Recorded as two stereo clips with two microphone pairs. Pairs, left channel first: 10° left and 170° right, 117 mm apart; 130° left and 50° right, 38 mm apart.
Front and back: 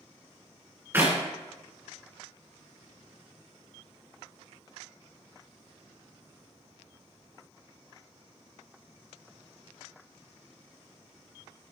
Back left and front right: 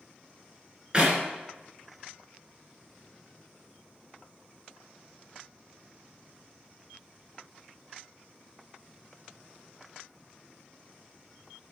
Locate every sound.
0.9 s a clap: 105° right, 1.9 m